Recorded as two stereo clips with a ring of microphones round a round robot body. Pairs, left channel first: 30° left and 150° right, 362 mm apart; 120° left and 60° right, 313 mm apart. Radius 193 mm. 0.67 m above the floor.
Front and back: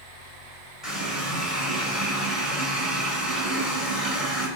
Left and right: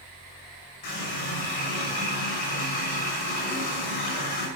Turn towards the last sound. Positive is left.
turn(degrees=120)